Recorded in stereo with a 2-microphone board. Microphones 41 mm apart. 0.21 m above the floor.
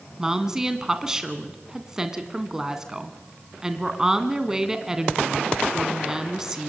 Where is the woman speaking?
15° right (ahead or behind), 2 m.